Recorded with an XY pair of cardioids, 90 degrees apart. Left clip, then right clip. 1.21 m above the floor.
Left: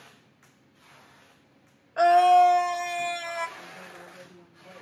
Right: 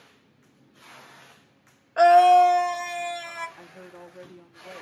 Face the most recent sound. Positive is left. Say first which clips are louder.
# left 2 dB
turn(degrees=-40)